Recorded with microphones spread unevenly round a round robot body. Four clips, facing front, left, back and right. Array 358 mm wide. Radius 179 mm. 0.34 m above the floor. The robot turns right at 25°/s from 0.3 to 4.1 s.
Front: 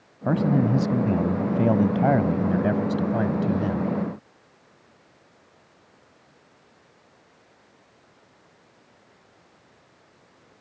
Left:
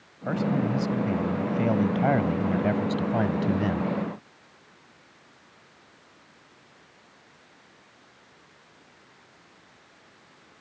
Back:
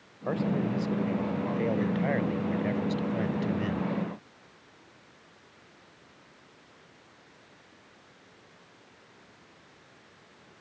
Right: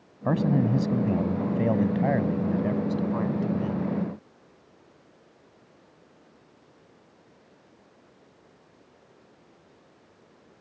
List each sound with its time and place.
0.2 s a man speaking: 30° right; by 3.9 s 60° left